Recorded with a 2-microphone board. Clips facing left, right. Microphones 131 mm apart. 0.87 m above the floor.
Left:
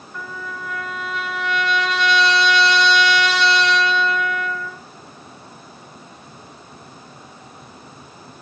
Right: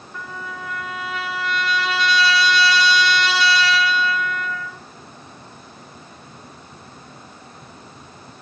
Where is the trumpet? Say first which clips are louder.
Left 1 dB; 5° right (ahead or behind), 3.5 m.